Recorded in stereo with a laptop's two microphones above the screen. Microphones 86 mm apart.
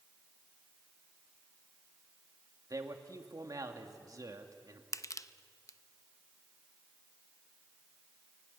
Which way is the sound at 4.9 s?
40° left (ahead or behind).